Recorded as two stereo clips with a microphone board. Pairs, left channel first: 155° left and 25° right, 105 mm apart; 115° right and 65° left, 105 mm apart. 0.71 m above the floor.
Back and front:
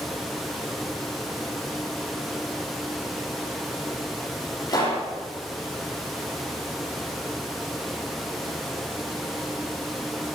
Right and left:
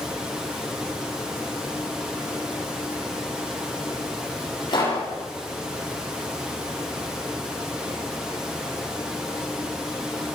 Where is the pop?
155° right, 9.5 m.